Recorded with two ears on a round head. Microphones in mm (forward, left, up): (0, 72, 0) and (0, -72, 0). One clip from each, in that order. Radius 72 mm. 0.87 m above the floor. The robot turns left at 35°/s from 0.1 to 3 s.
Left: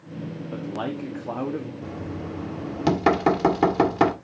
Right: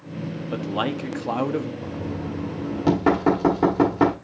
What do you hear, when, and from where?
0.5 s a man speaking: 60° right, 1.2 m; by 1.7 s 100° right, 1.2 m
1.8 s knocking: 155° left, 1.8 m; by 4.1 s 115° left, 1.8 m